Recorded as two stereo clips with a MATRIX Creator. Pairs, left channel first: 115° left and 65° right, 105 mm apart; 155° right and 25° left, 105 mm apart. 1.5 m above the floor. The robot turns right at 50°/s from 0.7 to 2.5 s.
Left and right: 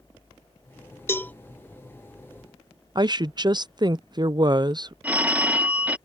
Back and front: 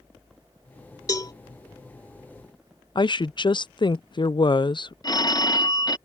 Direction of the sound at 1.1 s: 165° left.